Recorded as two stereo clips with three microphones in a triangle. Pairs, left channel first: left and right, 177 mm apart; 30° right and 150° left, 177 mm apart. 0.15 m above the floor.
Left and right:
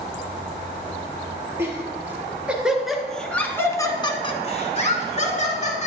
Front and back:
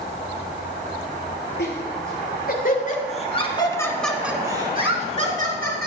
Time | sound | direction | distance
1.6 | laughter | 15° right | 3 m